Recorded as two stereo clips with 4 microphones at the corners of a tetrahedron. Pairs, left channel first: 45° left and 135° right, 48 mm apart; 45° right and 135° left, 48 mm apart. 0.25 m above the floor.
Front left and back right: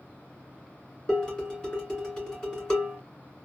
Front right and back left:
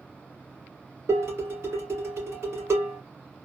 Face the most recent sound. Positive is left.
turn(degrees=120)